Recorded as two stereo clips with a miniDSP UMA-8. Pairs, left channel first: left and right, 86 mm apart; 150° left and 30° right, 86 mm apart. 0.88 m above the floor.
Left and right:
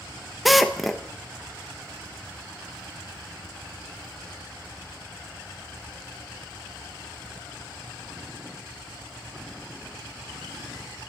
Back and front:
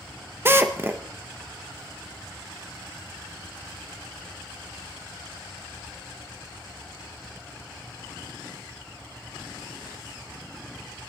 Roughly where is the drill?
Ahead.